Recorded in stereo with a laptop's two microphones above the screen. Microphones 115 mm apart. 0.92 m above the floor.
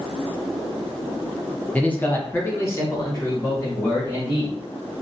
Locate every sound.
1.7 s a man speaking: 10° left (ahead or behind), 0.6 m; by 4.5 s 30° left (ahead or behind), 1.9 m